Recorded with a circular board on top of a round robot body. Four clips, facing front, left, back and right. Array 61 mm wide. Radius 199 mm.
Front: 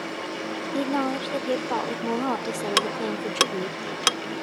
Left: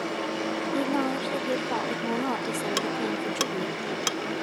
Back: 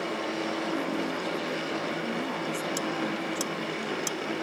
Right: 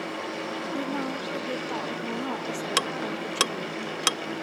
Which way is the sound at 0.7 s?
15° left.